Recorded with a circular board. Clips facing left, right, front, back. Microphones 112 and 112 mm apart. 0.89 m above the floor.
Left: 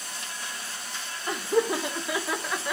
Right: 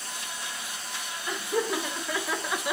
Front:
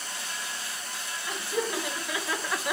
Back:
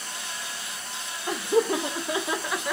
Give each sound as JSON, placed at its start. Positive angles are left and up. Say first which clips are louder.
{"t": 1.3, "sound": "laughter", "louder": "left 4 dB, back 8 dB", "azimuth_deg": 150, "distance_m": 1.2}